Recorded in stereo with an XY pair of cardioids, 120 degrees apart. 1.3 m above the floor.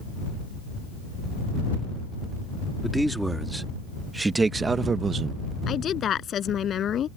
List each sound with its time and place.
2.8 s a man speaking: 5° right; by 5.4 s 50° right
5.7 s a woman speaking: 50° left